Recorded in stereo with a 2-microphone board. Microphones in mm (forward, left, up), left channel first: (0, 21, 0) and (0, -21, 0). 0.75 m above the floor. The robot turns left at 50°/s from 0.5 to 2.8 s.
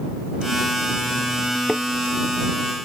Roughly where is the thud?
Centre.